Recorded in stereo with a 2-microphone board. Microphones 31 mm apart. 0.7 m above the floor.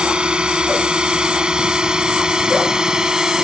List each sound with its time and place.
0.0 s a drone: 30° right (ahead or behind); by 3.4 s 20° right (ahead or behind)